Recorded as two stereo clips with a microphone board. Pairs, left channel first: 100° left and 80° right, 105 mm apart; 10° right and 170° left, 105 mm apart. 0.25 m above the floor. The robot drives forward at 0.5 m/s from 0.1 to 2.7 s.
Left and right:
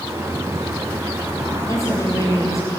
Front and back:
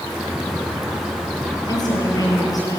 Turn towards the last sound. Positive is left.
turn(degrees=40)